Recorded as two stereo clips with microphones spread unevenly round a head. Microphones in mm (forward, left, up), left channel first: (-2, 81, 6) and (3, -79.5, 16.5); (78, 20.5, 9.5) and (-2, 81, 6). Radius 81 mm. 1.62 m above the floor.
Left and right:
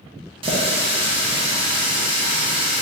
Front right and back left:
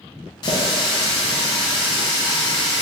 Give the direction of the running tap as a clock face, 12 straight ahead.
2 o'clock.